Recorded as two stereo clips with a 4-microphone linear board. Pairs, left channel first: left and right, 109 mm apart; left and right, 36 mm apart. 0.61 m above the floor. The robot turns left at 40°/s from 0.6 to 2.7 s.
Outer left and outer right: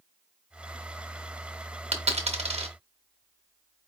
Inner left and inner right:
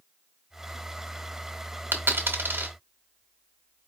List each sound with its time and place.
1.9 s a dropped coin: 80° right, 1.0 m; by 3.9 s 65° right (ahead or behind), 1.0 m